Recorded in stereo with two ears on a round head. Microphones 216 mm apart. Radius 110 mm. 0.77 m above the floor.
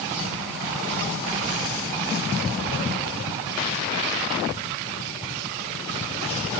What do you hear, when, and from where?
Only background noise.